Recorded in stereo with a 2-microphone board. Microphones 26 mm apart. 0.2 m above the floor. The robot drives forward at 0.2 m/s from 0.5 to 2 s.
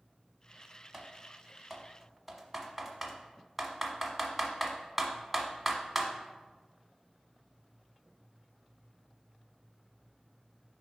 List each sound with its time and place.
0.9 s typing on a keyboard: 10° right (ahead or behind), 1.0 m; by 6.1 s 5° right (ahead or behind), 1.1 m